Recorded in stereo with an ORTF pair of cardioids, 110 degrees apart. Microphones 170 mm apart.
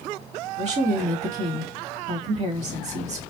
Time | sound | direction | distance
0.6 | a woman speaking | 45° right | 1.7 m